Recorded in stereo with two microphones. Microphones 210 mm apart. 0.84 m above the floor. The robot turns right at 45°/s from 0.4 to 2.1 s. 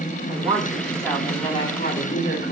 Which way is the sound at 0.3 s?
25° right.